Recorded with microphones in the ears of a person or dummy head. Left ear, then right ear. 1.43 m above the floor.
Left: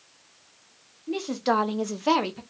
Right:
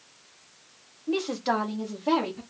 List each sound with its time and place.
1.1 s a woman speaking: 15° right (ahead or behind), 0.7 m; by 2.4 s 85° left, 0.9 m